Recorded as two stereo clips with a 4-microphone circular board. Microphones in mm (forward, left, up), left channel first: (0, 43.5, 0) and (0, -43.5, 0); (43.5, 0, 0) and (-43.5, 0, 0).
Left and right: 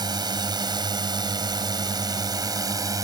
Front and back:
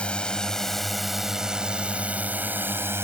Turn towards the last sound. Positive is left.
turn(degrees=-125)